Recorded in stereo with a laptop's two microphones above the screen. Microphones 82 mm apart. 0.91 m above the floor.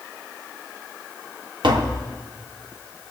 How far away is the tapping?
About 0.9 m.